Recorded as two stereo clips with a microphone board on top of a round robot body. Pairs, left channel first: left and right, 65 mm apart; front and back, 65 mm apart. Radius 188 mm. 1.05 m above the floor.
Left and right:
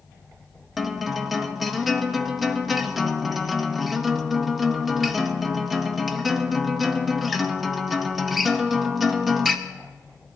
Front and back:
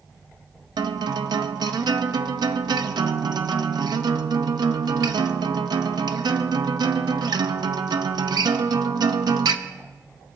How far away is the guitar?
About 0.7 m.